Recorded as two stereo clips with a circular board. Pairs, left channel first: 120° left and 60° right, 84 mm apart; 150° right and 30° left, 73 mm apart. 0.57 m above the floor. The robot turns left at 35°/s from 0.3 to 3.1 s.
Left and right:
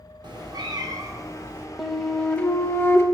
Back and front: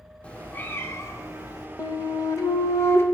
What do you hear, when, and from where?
0.2 s a cat meowing: 75° right, 0.6 m; by 1.7 s 125° right, 0.6 m
1.8 s a flute: 145° right, 0.5 m; by 3.0 s 170° left, 0.5 m